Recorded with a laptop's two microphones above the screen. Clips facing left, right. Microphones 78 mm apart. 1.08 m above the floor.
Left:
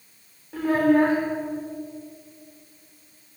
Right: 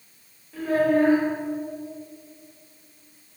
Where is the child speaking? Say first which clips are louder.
Left 2 dB; 75° left (ahead or behind), 2.0 m.